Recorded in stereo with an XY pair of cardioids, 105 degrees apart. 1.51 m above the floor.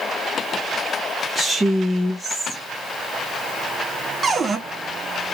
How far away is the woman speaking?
About 0.8 m.